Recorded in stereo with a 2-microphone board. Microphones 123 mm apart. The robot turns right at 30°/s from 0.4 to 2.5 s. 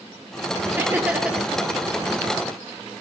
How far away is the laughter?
About 2.5 m.